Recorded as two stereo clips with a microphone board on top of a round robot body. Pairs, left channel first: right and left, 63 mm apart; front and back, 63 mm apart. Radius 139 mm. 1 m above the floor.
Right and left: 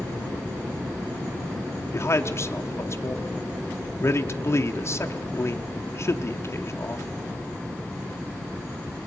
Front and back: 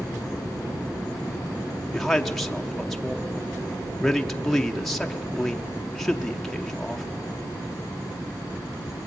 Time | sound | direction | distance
1.9 | a man speaking | 85° right | 1.0 m